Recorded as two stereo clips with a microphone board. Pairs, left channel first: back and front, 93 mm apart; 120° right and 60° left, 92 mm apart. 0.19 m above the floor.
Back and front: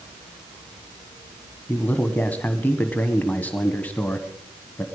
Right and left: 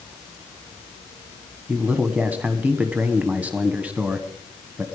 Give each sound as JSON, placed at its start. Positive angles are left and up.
{"t": 1.7, "sound": "a man speaking", "azimuth_deg": 125, "distance_m": 1.3}